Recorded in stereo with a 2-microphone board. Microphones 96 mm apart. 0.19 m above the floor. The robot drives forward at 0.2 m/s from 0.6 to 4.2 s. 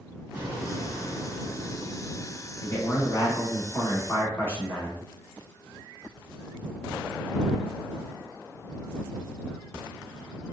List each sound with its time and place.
0.3 s an explosion: 20° right (ahead or behind), 1.5 m
2.6 s a man speaking: 30° left (ahead or behind), 1.2 m; by 5.0 s 25° left (ahead or behind), 1.4 m